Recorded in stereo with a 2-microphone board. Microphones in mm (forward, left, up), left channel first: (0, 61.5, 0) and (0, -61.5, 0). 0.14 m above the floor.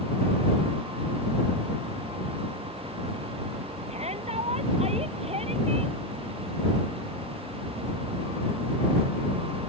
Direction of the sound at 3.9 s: 60° right (ahead or behind).